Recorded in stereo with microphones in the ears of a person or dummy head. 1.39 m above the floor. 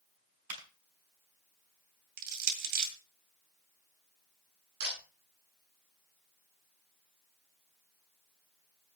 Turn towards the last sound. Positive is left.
turn(degrees=-50)  # may be behind; listen again after turning